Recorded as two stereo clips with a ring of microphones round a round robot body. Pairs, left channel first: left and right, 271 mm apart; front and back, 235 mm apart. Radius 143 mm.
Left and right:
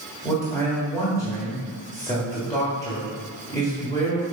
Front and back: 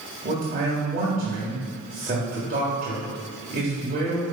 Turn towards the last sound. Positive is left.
turn(degrees=160)